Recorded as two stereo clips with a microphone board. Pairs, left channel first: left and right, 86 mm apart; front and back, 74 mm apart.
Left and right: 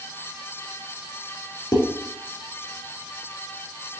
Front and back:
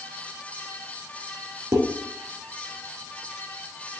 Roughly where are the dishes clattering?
Behind left.